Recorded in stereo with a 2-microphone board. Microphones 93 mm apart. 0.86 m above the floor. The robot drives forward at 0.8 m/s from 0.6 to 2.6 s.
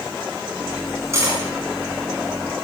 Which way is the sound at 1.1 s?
30° right (ahead or behind).